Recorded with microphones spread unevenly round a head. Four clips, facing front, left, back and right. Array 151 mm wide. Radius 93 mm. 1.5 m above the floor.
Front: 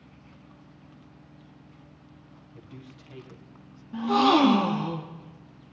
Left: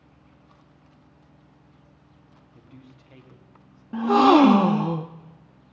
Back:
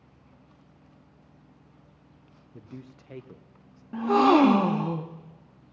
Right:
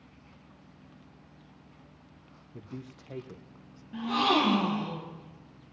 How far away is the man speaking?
About 0.9 m.